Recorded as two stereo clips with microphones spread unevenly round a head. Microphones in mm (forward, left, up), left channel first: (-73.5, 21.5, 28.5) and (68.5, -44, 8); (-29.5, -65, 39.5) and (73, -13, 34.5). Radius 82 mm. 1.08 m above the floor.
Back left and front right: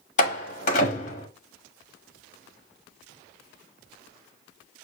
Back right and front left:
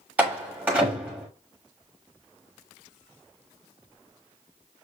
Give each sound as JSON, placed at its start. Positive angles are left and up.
{"t": 0.2, "sound": "a door slam", "azimuth_deg": 110, "distance_m": 1.2}